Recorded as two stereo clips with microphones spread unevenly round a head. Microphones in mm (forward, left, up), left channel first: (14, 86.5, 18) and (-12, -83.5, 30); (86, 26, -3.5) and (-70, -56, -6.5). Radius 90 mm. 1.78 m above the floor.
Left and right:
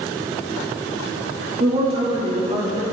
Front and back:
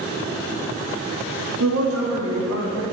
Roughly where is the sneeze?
No sneeze in this recording.